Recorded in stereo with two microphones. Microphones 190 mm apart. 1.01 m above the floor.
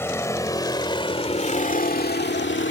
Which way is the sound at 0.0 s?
15° left (ahead or behind).